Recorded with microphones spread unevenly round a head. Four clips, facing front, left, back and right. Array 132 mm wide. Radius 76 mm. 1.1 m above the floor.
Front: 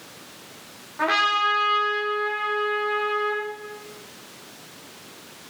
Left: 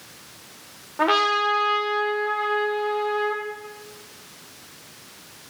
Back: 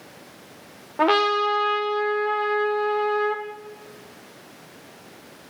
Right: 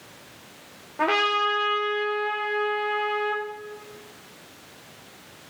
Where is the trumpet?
175° left, 1.2 m.